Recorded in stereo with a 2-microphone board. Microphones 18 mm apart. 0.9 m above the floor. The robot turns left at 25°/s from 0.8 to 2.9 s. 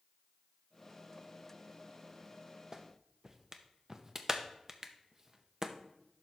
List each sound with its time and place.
2.7 s a clap: 25° right (ahead or behind), 0.7 m